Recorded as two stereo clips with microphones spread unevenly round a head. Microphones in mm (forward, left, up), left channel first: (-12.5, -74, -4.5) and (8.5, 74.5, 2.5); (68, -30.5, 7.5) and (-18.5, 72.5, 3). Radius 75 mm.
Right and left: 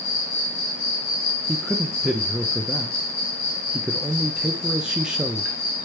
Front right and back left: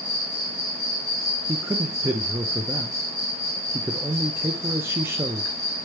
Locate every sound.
0.0 s an insect: 120° right, 1.5 m
1.5 s a man speaking: 165° left, 0.5 m